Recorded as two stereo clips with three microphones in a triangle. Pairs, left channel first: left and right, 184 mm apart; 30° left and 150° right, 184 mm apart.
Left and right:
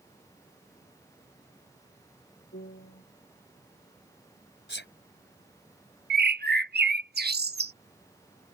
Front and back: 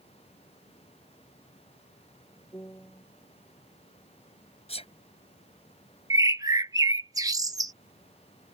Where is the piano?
105° left.